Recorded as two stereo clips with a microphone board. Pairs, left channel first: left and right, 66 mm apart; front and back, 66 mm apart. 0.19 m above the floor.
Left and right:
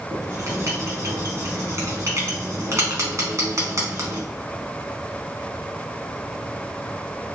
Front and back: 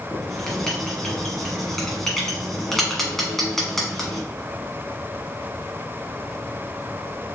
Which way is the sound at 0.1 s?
80° right.